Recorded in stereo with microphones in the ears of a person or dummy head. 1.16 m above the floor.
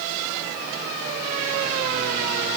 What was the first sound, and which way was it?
Only background noise.